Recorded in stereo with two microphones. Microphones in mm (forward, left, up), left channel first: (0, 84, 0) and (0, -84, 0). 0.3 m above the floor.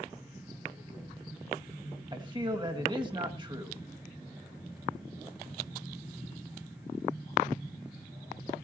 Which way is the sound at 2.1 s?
30° right (ahead or behind).